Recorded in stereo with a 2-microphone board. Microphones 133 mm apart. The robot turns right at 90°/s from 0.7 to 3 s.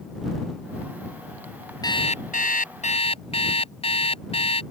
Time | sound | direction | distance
1.8 | an alarm clock | 30° left | ?